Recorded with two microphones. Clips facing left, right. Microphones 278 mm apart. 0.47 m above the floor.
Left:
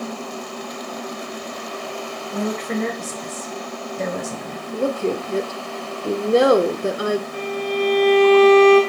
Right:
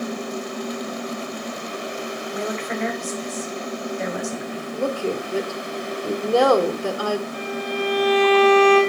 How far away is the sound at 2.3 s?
About 3 m.